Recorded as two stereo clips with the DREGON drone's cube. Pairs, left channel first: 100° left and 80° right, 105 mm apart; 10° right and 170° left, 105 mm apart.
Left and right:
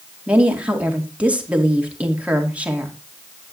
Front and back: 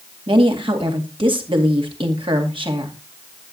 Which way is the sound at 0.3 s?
155° right.